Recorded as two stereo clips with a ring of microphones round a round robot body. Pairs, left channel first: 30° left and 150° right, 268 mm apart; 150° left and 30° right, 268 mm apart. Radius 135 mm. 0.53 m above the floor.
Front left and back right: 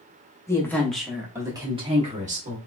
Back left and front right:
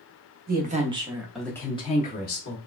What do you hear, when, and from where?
0.5 s a woman speaking: 40° right, 0.9 m; by 2.6 s 165° left, 1.0 m